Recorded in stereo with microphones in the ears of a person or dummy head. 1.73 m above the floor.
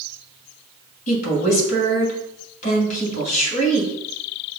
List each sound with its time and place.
1.1 s a woman speaking: 40° left (ahead or behind), 2 m